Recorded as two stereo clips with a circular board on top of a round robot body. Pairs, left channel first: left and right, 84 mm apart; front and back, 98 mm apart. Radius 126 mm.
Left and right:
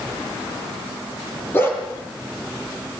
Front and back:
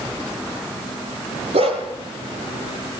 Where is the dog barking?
160° left, 4.5 m.